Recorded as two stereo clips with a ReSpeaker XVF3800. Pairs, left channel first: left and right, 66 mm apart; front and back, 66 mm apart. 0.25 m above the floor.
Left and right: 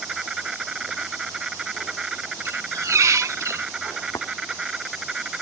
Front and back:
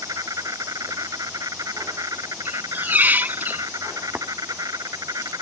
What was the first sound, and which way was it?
An insect, 170° right.